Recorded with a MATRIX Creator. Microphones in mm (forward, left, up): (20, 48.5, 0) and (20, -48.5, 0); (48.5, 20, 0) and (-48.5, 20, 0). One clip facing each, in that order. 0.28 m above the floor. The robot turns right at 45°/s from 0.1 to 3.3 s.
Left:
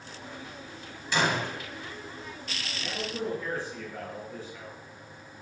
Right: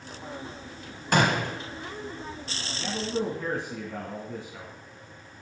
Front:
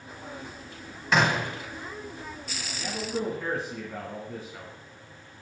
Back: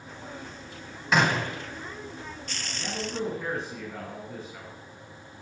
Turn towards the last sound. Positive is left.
turn(degrees=-85)